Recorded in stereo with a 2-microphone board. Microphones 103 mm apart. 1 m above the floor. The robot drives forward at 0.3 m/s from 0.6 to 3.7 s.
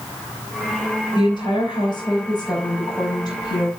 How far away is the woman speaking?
About 4.5 m.